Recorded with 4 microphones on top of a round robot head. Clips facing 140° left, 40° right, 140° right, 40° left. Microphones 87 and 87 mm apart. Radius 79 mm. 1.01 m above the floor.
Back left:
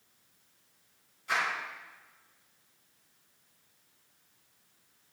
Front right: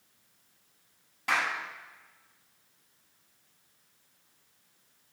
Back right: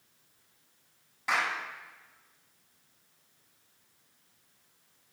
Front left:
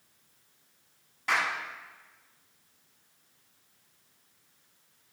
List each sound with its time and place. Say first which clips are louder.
1.3 s a clap: front right 2 dB, front left 1 dB; 55° right, 8.5 m